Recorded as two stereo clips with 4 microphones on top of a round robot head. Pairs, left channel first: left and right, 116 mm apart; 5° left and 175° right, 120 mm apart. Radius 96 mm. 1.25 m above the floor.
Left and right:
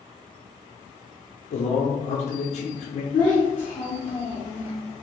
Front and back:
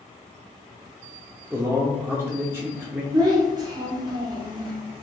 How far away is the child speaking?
About 0.6 m.